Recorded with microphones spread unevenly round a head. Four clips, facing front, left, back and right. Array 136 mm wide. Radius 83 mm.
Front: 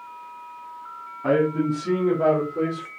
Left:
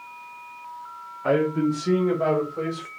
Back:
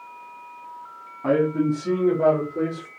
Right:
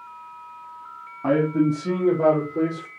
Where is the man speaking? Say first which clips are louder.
Right 2 dB, even; 80° right, 3.5 m; by 2.9 s 105° right, 5 m.